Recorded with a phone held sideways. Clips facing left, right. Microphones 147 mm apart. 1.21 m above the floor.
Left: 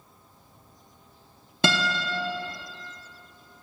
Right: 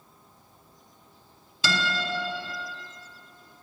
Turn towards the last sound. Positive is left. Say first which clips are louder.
# left 3 dB
turn(degrees=55)  # may be behind; listen again after turning